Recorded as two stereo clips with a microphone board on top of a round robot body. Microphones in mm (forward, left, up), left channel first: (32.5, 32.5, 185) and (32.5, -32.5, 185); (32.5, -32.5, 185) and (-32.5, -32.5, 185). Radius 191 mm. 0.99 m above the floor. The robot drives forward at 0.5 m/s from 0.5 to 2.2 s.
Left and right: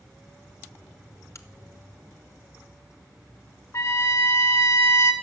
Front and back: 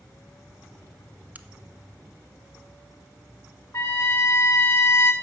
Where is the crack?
120° left, 0.9 m; by 1.5 s 125° left, 1.0 m.